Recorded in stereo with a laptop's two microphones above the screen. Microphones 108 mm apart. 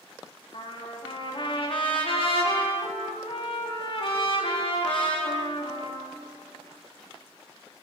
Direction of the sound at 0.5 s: 55° left (ahead or behind).